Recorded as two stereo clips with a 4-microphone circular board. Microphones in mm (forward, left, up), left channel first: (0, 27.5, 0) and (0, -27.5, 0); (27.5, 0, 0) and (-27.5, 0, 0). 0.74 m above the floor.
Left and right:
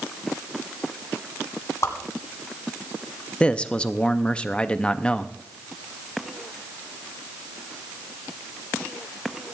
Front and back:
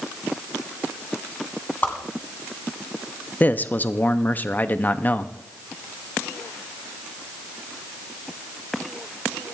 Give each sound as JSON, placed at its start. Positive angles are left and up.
{"t": 1.8, "sound": "a whoosh", "azimuth_deg": 55, "distance_m": 1.9}
{"t": 3.4, "sound": "a man speaking", "azimuth_deg": 30, "distance_m": 0.6}